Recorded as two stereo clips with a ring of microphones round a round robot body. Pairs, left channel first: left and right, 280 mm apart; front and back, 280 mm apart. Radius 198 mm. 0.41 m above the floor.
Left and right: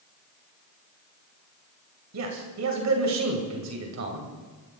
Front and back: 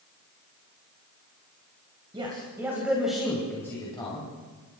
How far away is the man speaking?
About 2.5 m.